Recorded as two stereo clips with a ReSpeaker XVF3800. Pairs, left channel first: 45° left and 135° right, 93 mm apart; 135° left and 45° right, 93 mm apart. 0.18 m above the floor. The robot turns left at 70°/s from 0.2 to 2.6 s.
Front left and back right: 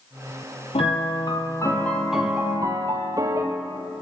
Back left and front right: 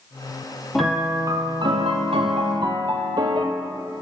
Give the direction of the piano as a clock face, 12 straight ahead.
10 o'clock.